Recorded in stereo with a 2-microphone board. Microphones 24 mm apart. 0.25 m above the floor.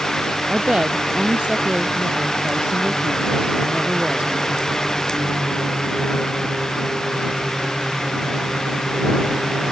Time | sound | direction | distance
0.5 | a woman speaking | 45° right (ahead or behind) | ?